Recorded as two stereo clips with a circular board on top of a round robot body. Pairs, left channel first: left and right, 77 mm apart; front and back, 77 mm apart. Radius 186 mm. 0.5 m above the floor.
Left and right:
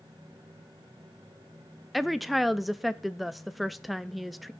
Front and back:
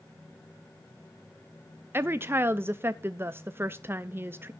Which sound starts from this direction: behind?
A woman speaking, at 1.9 s.